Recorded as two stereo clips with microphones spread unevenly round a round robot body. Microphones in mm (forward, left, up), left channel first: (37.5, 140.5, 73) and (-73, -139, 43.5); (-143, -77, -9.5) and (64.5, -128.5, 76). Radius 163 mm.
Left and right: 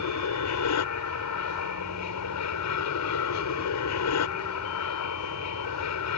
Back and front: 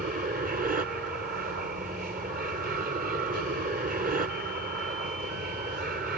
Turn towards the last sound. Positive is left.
turn(degrees=55)